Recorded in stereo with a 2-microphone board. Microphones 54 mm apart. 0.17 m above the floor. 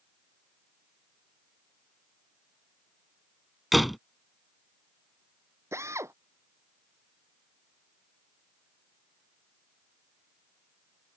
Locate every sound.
3.7 s a door slam: centre (ahead or behind)
5.7 s a drill: 60° right (ahead or behind)